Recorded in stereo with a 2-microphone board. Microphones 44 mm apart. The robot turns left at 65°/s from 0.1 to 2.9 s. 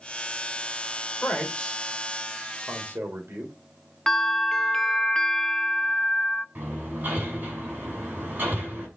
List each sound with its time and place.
1.2 s a man speaking: 50° left (ahead or behind), 4 m; by 3.5 s 55° right (ahead or behind), 4 m
4.1 s a bell: 20° left (ahead or behind), 0.7 m
6.5 s hammering: 45° right (ahead or behind), 6.5 m